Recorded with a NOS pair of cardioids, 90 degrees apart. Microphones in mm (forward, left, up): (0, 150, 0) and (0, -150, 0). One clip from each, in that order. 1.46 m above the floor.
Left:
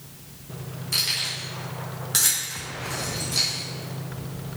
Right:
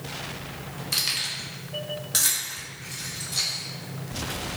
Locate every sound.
0.9 s keys jangling: 25° right, 1.3 m; by 4.6 s 35° left, 2 m